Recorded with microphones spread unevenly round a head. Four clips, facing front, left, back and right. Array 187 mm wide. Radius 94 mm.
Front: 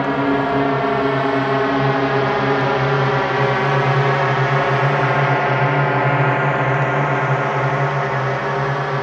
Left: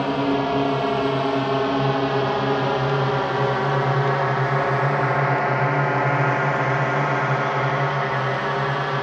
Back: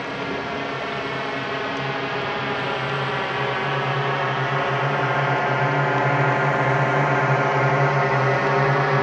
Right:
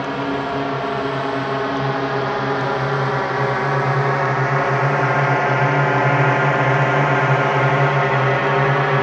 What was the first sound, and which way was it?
A drone, 15° left.